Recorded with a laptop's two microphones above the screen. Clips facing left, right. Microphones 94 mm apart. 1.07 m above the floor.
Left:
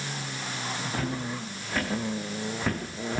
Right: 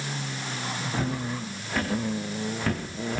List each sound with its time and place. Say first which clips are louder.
0.9 s footsteps: right 3 dB; 5° right (ahead or behind), 7.5 m; by 3.2 s 15° left (ahead or behind), 4.5 m